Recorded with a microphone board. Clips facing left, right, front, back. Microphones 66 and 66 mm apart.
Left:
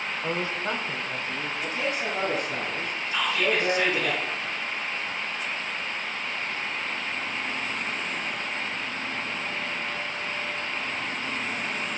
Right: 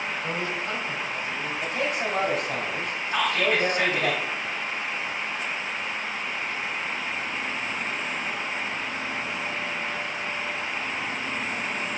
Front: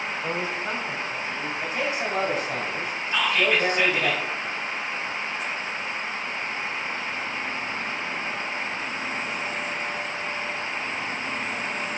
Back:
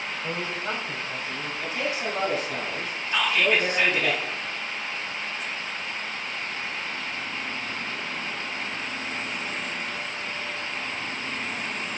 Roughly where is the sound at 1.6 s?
Ahead right.